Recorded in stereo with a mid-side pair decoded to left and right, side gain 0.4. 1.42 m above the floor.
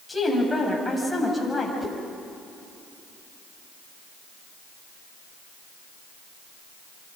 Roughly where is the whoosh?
Ahead.